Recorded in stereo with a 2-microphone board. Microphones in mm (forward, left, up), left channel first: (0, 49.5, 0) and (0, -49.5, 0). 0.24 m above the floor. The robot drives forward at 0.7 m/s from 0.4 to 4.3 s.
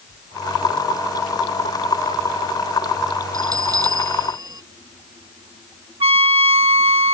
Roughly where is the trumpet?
Right.